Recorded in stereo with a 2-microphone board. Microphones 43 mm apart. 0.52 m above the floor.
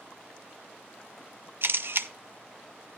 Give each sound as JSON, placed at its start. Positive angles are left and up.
{"t": 1.6, "sound": "a camera shutter", "side_deg": -55, "distance_m": 0.6}